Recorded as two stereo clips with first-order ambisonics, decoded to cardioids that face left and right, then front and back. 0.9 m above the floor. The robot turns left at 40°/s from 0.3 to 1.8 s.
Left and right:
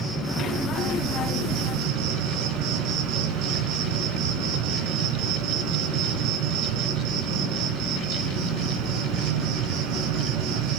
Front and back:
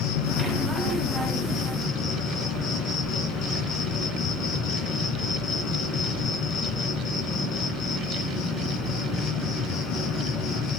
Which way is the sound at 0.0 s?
10° right.